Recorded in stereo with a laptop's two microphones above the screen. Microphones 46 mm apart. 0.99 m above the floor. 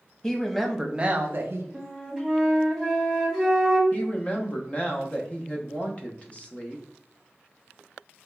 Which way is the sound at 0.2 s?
15° left (ahead or behind).